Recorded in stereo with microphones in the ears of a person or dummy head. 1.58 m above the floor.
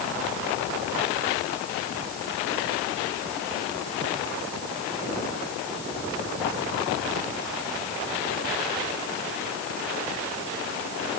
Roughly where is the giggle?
No giggle in this recording.